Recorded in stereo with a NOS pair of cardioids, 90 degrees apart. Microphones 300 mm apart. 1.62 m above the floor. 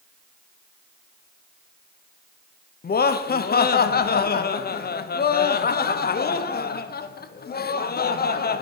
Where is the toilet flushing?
I don't hear a toilet flushing.